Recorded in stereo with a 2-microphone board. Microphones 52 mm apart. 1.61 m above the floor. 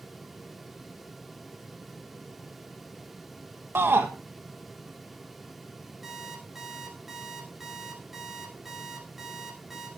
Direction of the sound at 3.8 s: 50° right (ahead or behind).